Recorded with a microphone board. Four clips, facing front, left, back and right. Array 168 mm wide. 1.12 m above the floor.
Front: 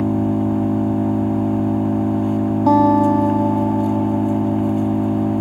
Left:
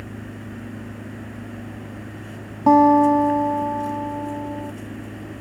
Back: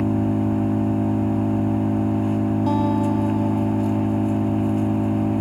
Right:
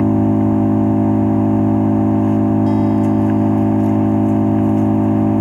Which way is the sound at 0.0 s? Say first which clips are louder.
Right 23 dB, front 3 dB; 75° right.